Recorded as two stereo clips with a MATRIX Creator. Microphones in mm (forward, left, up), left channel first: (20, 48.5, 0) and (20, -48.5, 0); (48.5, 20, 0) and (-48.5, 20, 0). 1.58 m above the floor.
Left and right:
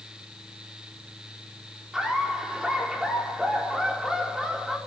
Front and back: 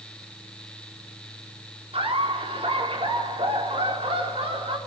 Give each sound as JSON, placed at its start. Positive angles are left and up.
{"t": 1.9, "sound": "laughter", "azimuth_deg": -175, "distance_m": 4.5}